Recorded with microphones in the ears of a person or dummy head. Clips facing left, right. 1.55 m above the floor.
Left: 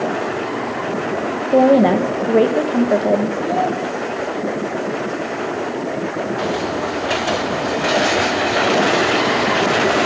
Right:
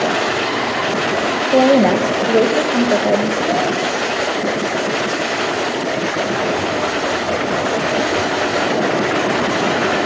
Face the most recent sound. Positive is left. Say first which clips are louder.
# right 1 dB
turn(degrees=-75)  # may be behind; listen again after turning